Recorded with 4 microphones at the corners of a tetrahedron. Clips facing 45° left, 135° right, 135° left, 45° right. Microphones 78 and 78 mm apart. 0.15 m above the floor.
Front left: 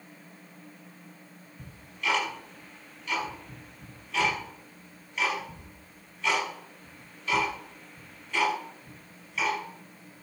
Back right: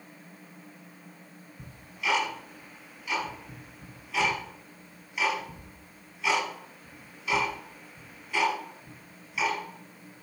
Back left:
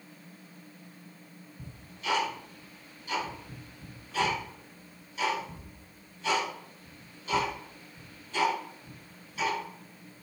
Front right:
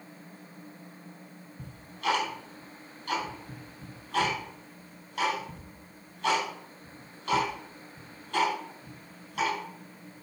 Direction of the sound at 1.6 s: 50° right.